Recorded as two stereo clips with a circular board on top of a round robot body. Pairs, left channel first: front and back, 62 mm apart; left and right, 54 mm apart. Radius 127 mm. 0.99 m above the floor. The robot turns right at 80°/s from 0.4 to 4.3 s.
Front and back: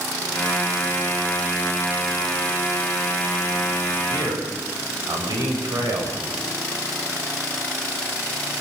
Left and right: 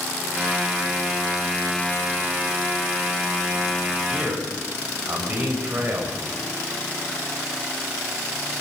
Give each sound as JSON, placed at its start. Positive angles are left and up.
{"t": 4.1, "sound": "a man speaking", "azimuth_deg": -165, "distance_m": 6.5}